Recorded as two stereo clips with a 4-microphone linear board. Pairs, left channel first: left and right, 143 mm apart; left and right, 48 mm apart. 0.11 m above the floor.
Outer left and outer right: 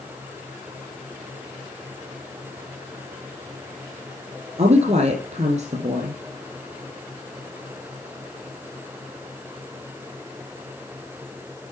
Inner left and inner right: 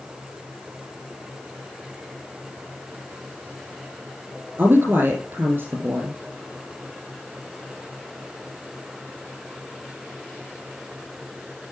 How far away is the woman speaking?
About 3 m.